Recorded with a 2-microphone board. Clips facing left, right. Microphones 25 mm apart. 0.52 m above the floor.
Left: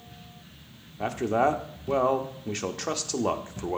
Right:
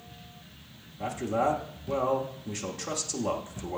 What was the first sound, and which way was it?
A man speaking, 40° left (ahead or behind).